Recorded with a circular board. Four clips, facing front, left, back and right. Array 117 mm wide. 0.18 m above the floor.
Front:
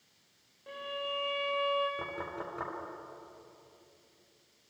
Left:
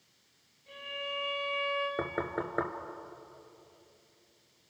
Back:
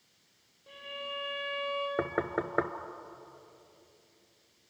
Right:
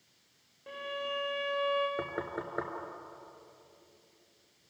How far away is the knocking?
About 1.8 m.